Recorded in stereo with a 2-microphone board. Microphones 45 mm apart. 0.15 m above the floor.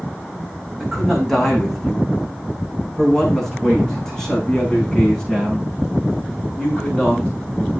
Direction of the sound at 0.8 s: Centre (ahead or behind).